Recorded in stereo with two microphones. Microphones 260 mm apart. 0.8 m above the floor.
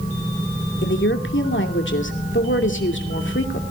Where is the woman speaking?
45° left (ahead or behind), 2.5 m.